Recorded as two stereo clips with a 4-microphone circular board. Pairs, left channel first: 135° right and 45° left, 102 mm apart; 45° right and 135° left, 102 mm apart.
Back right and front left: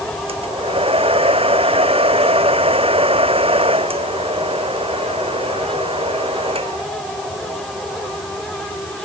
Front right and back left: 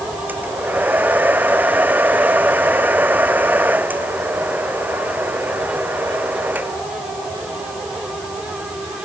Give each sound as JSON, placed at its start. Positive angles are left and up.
{"t": 0.3, "sound": "a hair dryer", "azimuth_deg": 60}